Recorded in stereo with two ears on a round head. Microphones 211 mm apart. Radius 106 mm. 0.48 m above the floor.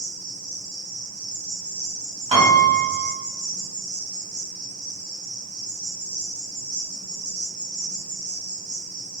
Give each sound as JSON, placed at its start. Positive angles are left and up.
{"t": 0.0, "sound": "an insect", "side_deg": -5, "distance_m": 1.8}
{"t": 2.3, "sound": "a piano", "side_deg": -25, "distance_m": 1.7}